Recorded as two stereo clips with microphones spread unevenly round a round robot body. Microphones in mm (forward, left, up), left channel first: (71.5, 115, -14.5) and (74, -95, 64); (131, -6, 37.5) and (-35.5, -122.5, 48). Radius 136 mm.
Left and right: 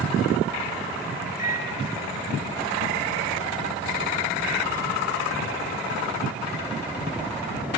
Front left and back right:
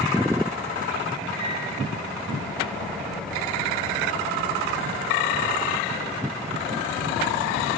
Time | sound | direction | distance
1.4 | a microwave | 145° left | 3.5 m